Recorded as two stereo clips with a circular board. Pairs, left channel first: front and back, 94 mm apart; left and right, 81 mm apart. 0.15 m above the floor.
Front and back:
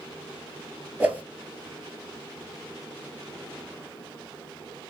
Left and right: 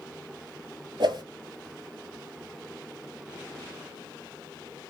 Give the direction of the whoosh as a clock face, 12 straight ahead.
4 o'clock.